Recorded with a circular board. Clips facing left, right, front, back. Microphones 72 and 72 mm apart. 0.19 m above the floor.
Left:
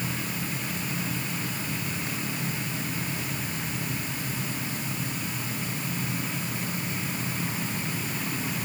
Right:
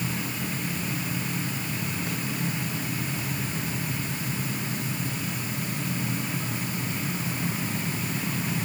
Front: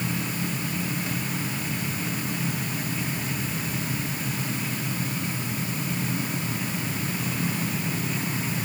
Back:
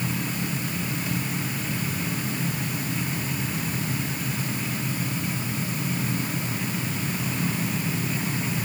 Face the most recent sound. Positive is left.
No sound to turn to.